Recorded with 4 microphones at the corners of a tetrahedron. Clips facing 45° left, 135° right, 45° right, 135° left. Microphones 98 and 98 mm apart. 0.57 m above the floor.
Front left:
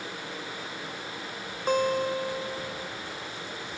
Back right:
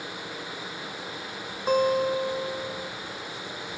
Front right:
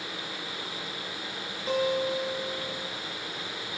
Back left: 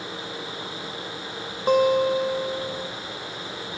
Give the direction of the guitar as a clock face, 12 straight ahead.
7 o'clock.